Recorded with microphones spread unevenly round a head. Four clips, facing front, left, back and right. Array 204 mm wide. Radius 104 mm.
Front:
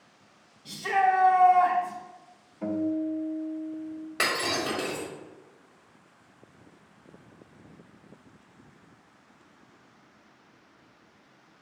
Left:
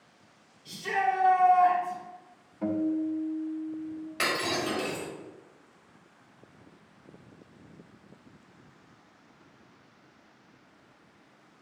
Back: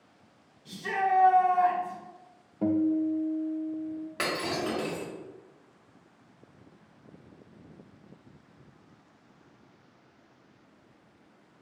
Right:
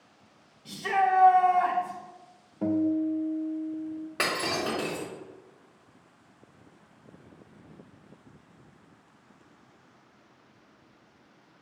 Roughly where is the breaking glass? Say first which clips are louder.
Even, front 2 dB; right.